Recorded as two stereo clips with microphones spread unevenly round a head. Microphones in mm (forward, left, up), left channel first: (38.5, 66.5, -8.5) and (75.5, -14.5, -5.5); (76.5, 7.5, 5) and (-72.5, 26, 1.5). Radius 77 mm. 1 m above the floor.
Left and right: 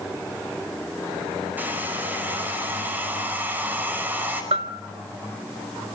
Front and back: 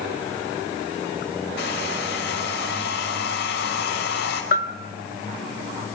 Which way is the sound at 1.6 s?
5° left.